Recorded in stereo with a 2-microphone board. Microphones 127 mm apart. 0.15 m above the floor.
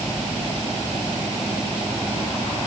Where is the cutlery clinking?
No cutlery clinking in this recording.